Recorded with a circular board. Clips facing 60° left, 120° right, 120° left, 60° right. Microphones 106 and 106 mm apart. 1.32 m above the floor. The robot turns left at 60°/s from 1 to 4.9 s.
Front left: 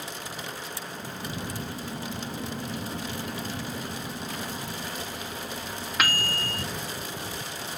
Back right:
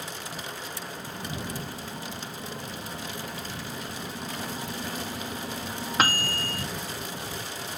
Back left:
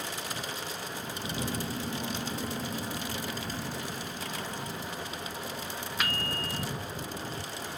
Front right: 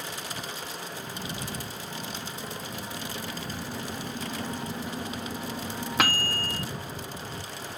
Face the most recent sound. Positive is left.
turn(degrees=-65)